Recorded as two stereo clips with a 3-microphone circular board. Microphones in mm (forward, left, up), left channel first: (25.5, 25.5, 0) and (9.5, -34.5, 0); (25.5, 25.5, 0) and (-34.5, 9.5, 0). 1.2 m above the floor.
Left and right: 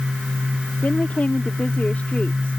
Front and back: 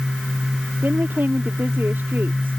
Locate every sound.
0.8 s a woman speaking: 140° left